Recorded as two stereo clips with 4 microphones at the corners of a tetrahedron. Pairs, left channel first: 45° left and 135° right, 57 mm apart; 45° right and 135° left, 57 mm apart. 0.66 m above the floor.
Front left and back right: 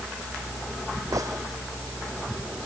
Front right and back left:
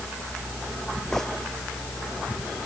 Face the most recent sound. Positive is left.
turn(degrees=-125)